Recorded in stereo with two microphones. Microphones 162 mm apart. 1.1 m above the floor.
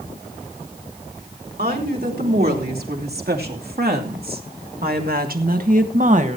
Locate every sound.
1.6 s a woman speaking: 70° right (ahead or behind), 3.5 m; by 6.4 s 45° right (ahead or behind), 1.4 m